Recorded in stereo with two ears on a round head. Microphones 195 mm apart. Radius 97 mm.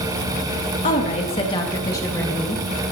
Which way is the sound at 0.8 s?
35° left (ahead or behind).